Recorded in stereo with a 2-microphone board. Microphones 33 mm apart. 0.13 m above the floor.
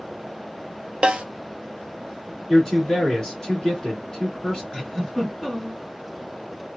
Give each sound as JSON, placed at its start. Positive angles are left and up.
{"t": 1.0, "sound": "a snare drum", "side_deg": -30, "distance_m": 0.5}
{"t": 2.5, "sound": "a man speaking", "side_deg": 15, "distance_m": 1.5}
{"t": 4.7, "sound": "a giggle", "side_deg": 15, "distance_m": 1.7}